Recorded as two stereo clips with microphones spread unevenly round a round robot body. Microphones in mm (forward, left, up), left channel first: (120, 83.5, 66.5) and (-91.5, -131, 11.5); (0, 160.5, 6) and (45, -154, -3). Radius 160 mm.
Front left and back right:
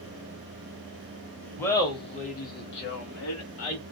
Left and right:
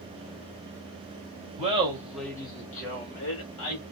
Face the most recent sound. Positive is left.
turn(degrees=85)